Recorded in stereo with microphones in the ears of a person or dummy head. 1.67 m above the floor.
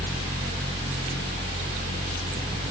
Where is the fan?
35° right (ahead or behind), 0.8 m.